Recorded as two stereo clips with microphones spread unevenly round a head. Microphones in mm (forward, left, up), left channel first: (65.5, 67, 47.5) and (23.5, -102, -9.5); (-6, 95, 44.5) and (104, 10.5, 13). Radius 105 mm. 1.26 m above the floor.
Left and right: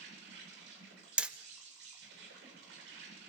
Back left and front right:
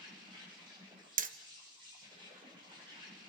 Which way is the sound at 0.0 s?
100° right.